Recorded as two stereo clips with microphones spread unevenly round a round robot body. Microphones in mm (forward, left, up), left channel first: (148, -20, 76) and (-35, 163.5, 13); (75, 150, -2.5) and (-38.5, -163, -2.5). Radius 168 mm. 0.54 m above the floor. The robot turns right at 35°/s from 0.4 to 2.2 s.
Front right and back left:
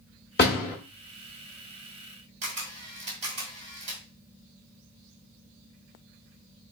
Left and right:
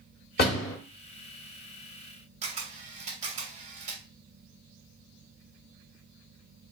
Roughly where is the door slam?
Ahead.